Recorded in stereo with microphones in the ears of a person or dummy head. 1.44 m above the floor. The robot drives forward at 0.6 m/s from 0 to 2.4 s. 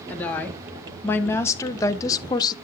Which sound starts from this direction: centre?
A woman speaking, at 0.1 s.